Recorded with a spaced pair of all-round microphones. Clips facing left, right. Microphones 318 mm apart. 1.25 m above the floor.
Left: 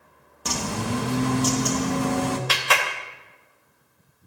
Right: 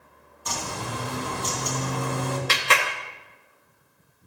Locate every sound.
0.5 s a bird: 80° left, 2 m
2.5 s a clap: 30° right (ahead or behind), 1.9 m